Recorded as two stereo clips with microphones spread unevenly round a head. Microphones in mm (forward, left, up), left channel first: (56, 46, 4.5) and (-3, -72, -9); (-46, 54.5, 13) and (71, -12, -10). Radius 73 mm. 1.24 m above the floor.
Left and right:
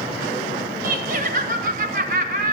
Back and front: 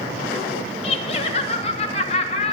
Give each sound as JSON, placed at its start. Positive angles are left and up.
{"t": 0.8, "sound": "laughter", "azimuth_deg": -155, "distance_m": 1.8}